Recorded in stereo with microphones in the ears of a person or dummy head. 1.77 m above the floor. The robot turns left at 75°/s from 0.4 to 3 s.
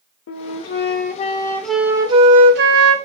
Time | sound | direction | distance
0.3 | a flute | 95° left | 0.6 m